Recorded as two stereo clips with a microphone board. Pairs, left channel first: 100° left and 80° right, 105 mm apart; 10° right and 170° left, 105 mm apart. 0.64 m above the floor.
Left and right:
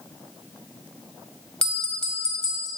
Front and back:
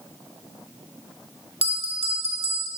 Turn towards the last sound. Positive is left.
turn(degrees=180)